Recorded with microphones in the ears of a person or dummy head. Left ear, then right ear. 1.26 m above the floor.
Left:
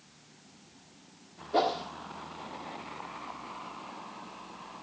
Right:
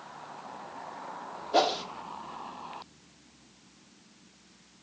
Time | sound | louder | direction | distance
1.5 | a whoosh | right 2 dB | 35° right (ahead or behind) | 1.5 m